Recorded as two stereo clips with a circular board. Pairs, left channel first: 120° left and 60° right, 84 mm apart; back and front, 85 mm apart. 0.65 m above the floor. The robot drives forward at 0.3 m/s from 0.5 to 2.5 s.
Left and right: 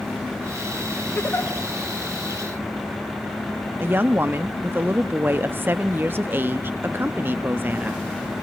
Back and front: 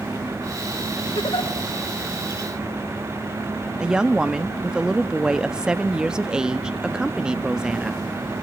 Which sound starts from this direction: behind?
A giggle, at 1.1 s.